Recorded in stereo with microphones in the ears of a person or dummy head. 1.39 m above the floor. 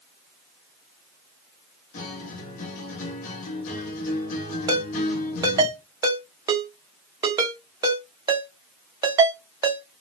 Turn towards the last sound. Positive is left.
turn(degrees=-20)  # may be behind; listen again after turning